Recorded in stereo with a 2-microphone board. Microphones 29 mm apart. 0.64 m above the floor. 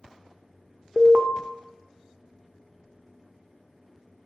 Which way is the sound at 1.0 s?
35° right (ahead or behind).